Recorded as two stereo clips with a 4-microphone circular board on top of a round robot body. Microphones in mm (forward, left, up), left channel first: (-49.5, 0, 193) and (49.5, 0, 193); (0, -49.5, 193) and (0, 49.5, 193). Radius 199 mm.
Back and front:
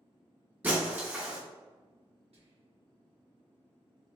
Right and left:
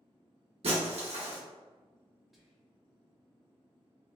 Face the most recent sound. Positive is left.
turn(degrees=0)